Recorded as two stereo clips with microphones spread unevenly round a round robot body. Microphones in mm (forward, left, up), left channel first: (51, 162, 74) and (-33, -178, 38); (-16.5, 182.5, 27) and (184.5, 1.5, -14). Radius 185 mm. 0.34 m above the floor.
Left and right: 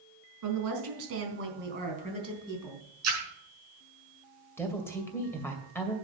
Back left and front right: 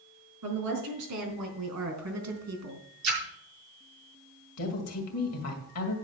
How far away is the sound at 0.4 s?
About 4 m.